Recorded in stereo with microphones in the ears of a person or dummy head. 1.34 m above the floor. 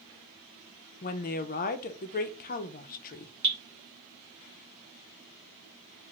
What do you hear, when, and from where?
1.0 s a woman speaking: 50° left (ahead or behind), 0.5 m
3.4 s dripping: 60° right (ahead or behind), 1.0 m